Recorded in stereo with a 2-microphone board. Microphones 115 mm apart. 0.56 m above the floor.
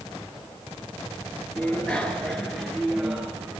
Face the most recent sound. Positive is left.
turn(degrees=-10)  # may be behind; listen again after turning